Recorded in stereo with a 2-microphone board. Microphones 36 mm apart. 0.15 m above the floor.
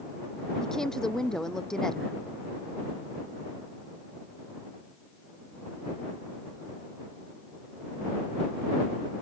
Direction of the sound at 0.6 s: 15° left (ahead or behind).